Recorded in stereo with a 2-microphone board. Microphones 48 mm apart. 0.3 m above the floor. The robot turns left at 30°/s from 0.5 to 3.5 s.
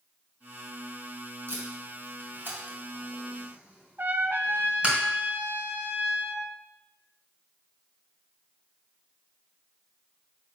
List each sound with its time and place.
1.5 s tape being pulled: 55° right (ahead or behind), 2.0 m; by 5.0 s 25° right (ahead or behind), 2.0 m
4.0 s a trumpet: 50° right (ahead or behind), 0.6 m